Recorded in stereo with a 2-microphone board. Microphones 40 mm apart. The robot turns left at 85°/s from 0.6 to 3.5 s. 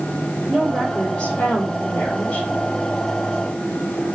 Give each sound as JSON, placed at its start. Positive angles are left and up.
{"t": 0.5, "sound": "a woman speaking", "azimuth_deg": 180, "distance_m": 2.5}